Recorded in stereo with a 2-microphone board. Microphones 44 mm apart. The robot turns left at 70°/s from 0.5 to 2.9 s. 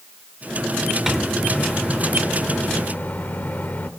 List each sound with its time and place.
1.1 s a microwave: 165° right, 0.7 m; by 3.9 s 65° left, 0.7 m